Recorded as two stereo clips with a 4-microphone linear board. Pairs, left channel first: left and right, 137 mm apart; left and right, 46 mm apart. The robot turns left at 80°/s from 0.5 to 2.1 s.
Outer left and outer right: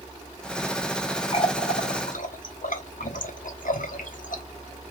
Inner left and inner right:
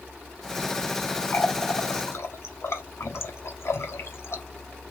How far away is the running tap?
About 1.0 m.